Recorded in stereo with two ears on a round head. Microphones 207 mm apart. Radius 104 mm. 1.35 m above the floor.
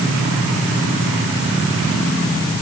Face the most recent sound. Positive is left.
No sound to turn to.